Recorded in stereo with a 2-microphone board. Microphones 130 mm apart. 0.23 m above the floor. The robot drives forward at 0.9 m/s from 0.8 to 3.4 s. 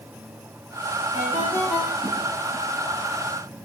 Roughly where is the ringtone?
Left.